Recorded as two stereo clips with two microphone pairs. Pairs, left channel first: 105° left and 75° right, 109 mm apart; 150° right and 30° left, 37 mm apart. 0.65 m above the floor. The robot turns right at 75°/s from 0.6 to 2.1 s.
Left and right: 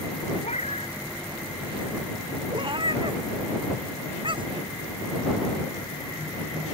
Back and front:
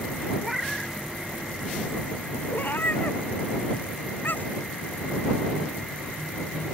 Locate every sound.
0.4 s a cat meowing: 115° left; by 0.9 s 140° left
2.5 s a cat meowing: 120° right